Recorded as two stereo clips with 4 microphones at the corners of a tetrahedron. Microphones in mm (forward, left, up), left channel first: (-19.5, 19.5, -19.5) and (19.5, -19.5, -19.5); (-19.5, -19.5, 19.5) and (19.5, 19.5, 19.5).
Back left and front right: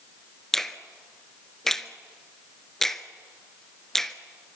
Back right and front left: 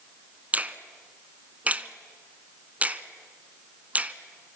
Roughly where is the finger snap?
Ahead left.